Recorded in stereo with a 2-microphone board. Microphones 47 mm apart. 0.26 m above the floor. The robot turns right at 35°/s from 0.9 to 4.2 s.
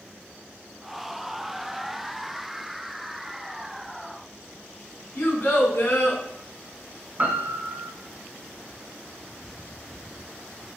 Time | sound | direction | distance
5.2 | a child speaking | 45° left (ahead or behind) | 1.5 m
7.2 | a piano | 35° right (ahead or behind) | 0.5 m